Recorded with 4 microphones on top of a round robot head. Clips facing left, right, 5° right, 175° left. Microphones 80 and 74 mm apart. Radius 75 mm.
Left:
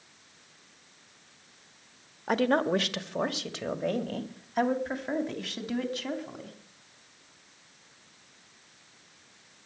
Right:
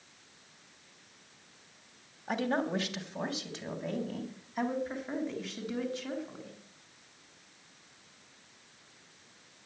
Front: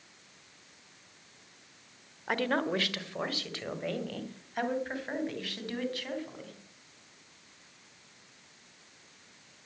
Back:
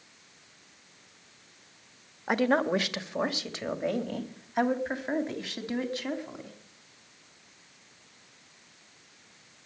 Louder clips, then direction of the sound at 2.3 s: Left 6 dB, back 5 dB; 105° left.